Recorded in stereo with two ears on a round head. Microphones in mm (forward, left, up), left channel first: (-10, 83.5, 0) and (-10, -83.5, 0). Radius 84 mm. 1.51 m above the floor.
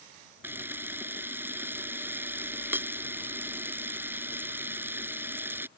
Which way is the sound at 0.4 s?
10° right (ahead or behind).